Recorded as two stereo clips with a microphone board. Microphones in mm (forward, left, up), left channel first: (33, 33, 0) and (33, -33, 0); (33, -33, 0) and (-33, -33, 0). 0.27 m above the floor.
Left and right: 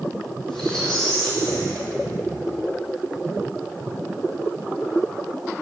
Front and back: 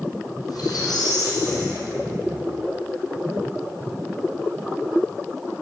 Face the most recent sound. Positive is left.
turn(degrees=5)